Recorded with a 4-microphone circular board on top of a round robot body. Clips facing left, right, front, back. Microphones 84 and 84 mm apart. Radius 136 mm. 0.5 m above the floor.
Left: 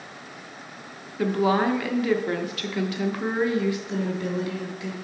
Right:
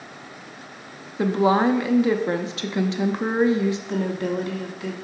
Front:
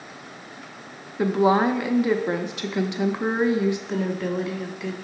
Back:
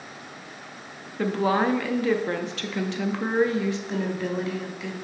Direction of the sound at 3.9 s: 90° right.